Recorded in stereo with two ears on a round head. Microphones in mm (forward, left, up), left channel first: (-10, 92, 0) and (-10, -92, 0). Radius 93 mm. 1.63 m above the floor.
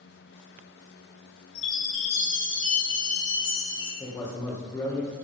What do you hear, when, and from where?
1.6 s a chime: 65° left (ahead or behind), 4.5 m
4.0 s a man speaking: 20° left (ahead or behind), 2 m